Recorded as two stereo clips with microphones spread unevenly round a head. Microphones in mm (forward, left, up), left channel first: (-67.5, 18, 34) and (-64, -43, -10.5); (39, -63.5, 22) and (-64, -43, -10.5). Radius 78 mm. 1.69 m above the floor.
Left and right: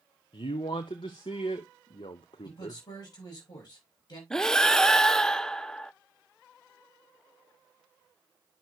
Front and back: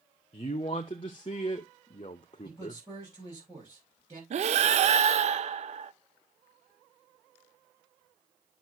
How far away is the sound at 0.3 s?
About 0.6 m.